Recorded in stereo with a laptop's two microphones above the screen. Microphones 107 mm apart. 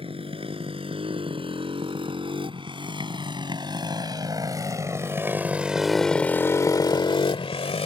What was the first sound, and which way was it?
A motorcycle, 60° right (ahead or behind).